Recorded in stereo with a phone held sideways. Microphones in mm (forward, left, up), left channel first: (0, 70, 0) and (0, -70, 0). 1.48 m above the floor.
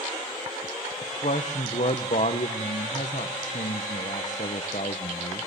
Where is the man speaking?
60° left (ahead or behind), 1.0 m.